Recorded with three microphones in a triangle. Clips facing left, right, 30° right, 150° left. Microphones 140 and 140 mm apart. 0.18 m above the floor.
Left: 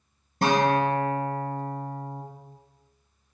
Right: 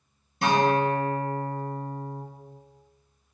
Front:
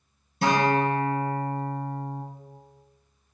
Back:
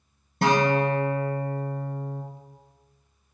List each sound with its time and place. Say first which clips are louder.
0.4 s a guitar: even, back 1 dB; 125° left, 3 m